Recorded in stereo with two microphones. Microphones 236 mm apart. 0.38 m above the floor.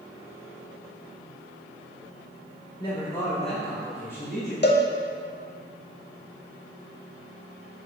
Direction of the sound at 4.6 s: 45° left (ahead or behind).